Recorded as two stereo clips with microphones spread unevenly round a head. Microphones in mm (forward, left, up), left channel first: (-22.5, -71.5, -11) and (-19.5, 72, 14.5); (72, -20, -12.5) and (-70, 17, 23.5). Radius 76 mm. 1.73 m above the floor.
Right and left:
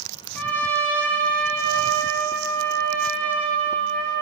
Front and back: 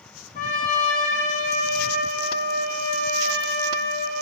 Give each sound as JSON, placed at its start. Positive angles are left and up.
{"t": 0.3, "sound": "a trumpet", "azimuth_deg": -5, "distance_m": 1.6}